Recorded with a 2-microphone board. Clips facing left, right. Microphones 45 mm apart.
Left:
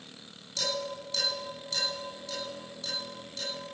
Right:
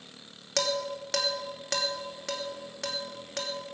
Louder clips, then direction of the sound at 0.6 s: Right 4 dB; 70° right (ahead or behind).